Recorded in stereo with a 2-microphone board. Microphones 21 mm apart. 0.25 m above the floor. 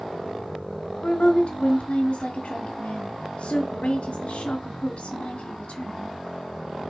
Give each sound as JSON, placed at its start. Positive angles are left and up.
{"t": 1.0, "sound": "a woman speaking", "side_deg": 60, "distance_m": 2.5}